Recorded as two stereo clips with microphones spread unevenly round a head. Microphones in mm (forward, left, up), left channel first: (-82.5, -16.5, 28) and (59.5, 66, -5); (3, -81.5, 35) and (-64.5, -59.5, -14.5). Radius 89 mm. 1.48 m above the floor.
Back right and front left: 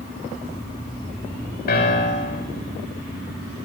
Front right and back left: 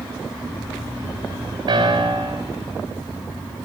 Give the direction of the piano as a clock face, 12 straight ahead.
6 o'clock.